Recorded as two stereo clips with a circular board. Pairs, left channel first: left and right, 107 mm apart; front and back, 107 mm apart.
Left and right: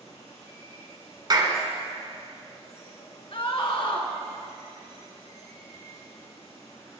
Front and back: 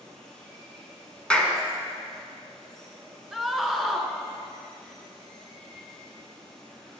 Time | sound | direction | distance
0.0 | running water | 85° left | 4 m
1.3 | a clap | 75° right | 1.6 m
3.3 | a scream | 90° left | 1.8 m